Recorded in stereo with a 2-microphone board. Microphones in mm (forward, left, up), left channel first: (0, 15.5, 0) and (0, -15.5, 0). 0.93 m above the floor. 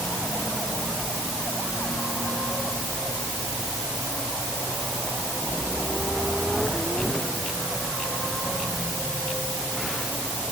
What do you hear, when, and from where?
Only background noise.